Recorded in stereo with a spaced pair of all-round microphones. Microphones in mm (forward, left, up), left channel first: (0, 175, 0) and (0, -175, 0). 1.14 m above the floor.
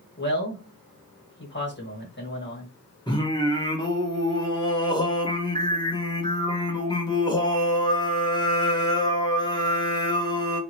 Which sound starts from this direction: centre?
Singing, at 3.1 s.